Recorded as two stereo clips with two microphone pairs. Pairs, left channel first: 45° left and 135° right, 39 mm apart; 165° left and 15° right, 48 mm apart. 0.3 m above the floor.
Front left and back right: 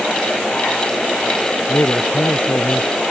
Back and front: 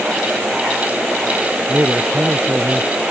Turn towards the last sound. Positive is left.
turn(degrees=30)